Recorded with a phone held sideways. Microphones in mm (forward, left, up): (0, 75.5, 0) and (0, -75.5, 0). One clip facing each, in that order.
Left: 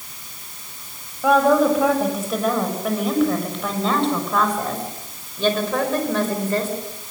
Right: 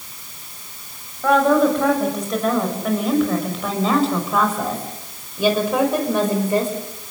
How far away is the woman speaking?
About 7.5 m.